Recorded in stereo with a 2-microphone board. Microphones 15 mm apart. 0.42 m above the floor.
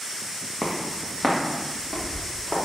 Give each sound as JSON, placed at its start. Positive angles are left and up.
{"t": 0.6, "sound": "footsteps", "side_deg": 35, "distance_m": 1.1}